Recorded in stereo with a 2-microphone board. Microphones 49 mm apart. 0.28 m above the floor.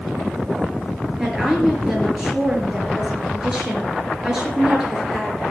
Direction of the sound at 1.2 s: 5° right (ahead or behind).